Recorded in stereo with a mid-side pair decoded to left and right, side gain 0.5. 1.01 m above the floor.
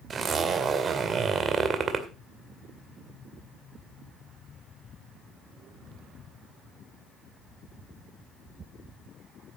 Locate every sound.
0.1 s a zipper: 40° right, 2 m